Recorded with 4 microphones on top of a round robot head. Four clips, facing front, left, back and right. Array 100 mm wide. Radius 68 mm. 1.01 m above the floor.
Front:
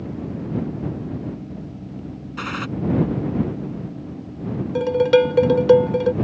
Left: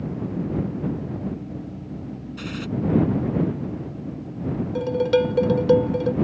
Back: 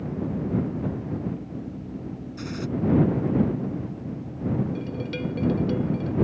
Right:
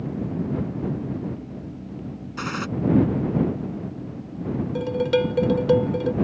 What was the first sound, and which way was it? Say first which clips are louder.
A gunshot: right 5 dB, front 6 dB; 35° right.